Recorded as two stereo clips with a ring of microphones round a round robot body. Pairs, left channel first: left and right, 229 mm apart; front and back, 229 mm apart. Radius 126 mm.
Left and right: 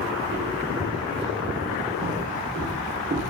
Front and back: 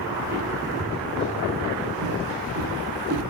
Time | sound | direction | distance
0.2 | footsteps | 135° right | 4 m